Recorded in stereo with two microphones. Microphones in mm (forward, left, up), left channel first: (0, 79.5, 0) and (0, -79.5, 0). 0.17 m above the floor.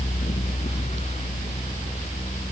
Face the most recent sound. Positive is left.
No sound to turn to.